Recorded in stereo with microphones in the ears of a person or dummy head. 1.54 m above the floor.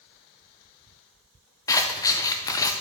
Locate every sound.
1.7 s scissors: 20° left (ahead or behind), 0.5 m